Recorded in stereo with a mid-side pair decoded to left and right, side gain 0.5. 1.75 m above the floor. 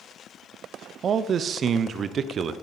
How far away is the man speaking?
About 1.0 m.